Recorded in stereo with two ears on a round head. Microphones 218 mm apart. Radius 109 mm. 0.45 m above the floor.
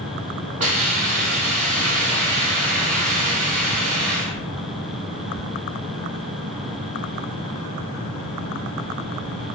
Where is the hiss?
30° right (ahead or behind), 0.7 m.